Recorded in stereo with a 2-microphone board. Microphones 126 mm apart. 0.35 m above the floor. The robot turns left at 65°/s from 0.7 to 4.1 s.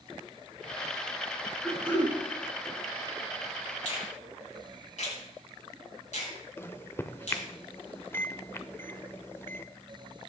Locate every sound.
1.6 s throat clearing: 175° left, 4.5 m; by 2.1 s 145° left, 4.5 m
3.9 s a finger snap: 75° left (ahead or behind), 4.5 m; by 7.5 s 70° left (ahead or behind), 4.5 m
6.6 s a microwave: 20° left (ahead or behind), 0.6 m